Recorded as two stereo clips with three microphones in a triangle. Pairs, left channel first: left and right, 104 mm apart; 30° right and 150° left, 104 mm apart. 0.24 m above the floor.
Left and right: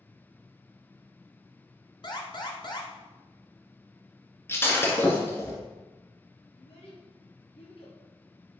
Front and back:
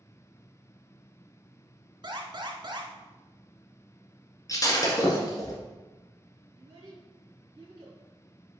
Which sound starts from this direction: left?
A child speaking, at 6.6 s.